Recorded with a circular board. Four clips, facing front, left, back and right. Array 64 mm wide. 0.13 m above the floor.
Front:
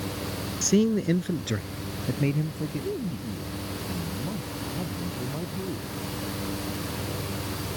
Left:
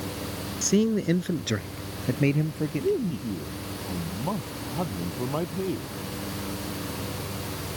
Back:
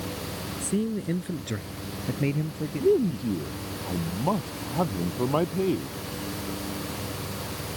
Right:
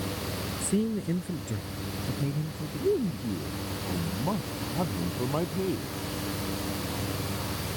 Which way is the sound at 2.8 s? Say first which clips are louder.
Right 2 dB, back 9 dB; 175° left.